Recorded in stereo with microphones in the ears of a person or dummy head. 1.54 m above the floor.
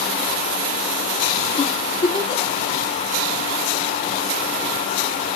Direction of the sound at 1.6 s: 25° left (ahead or behind).